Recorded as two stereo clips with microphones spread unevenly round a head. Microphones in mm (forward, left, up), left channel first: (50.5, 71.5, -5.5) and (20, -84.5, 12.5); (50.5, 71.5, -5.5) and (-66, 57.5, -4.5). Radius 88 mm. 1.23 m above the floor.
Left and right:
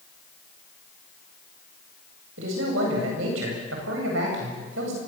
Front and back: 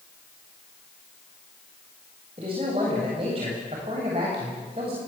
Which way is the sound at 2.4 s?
110° right.